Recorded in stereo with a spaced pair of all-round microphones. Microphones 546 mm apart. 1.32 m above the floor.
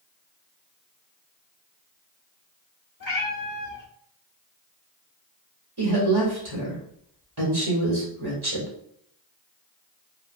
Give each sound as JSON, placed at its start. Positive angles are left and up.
{"t": 3.0, "sound": "a cat meowing", "side_deg": 35, "distance_m": 1.1}
{"t": 5.8, "sound": "a woman speaking", "side_deg": -45, "distance_m": 1.8}